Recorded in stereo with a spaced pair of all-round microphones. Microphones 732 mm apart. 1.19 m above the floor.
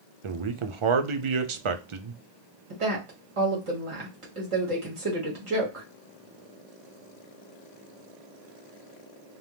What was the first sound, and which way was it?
A man speaking, 45° right (ahead or behind).